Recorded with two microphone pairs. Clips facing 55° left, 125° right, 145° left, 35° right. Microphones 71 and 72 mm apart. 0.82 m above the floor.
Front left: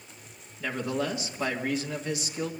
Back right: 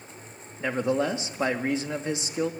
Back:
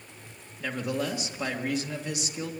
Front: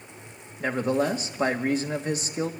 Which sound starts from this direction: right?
A man speaking, at 0.6 s.